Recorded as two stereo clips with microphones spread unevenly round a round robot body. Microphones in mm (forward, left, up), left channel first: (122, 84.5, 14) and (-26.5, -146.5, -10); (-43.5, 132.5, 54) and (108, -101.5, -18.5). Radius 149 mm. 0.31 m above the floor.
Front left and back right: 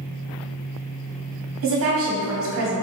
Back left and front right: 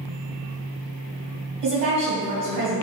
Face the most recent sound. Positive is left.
turn(degrees=-110)